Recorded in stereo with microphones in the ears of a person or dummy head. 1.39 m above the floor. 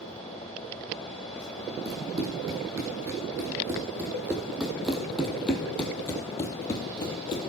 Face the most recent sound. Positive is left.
turn(degrees=35)  # may be behind; listen again after turning